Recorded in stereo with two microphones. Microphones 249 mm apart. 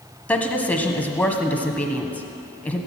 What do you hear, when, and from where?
0.3 s a woman speaking: 5° left (ahead or behind), 1.2 m